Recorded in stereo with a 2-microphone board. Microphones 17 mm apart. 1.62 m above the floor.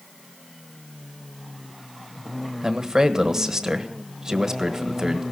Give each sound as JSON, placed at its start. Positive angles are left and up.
{"t": 2.6, "sound": "a man speaking", "side_deg": -35, "distance_m": 1.4}